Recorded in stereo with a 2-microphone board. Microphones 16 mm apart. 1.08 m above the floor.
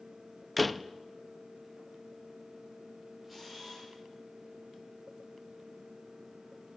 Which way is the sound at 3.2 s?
15° right (ahead or behind).